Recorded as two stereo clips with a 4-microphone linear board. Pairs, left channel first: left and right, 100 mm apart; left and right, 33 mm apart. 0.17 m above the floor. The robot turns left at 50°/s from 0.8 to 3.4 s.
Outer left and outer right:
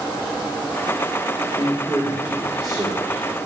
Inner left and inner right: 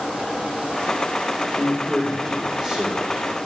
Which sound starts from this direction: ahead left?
A man speaking, at 1.5 s.